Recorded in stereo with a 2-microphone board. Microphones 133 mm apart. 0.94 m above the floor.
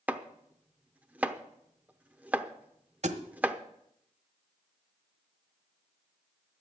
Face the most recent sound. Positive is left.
turn(degrees=-55)  # may be behind; listen again after turning